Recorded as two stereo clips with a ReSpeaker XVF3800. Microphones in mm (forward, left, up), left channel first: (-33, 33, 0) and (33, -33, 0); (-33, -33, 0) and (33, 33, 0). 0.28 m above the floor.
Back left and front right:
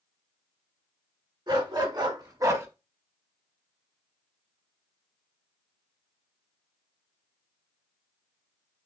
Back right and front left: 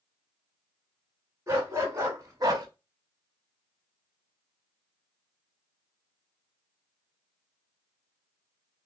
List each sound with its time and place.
1.5 s a dog barking: 15° right, 1.6 m; by 2.7 s 10° left, 0.7 m